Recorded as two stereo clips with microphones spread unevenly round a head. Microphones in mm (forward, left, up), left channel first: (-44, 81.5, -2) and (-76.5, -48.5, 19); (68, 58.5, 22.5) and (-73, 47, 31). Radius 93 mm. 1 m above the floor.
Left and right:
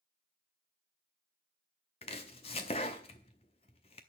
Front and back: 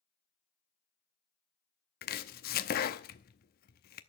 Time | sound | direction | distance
2.0 | chopping | 10° left | 0.7 m